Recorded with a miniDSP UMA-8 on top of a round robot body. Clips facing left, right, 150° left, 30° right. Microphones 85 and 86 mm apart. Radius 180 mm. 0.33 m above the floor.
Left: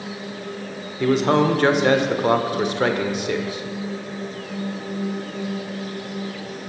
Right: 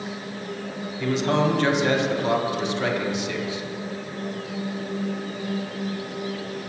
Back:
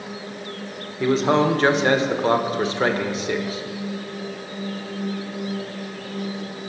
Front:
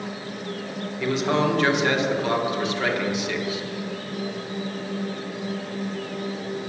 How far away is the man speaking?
About 1.7 m.